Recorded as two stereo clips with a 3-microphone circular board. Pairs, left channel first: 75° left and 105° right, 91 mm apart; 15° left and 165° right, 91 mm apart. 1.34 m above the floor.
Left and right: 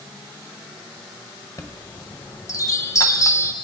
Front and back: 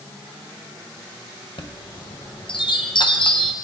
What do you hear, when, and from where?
1.6 s a chime: 25° left, 0.7 m